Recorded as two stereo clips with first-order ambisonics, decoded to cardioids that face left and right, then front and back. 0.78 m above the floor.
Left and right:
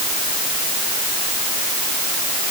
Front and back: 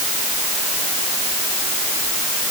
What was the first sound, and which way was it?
Only background noise.